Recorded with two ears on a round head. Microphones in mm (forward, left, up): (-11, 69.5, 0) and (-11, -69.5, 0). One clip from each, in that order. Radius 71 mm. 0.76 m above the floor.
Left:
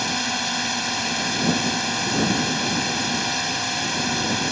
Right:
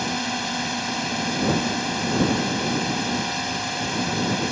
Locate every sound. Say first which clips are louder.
0.0 s a drone: left 2 dB; 25° left (ahead or behind)